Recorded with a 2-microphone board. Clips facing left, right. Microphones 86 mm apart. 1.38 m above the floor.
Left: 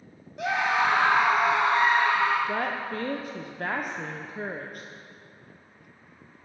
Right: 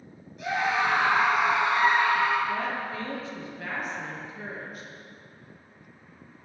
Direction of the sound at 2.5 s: 50° left (ahead or behind).